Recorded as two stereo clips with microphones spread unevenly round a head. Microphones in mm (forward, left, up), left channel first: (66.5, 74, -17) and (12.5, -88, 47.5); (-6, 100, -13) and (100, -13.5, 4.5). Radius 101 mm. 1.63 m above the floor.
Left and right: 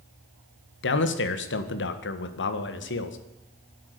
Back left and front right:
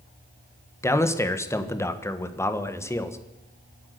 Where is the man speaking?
60° left, 1.6 m.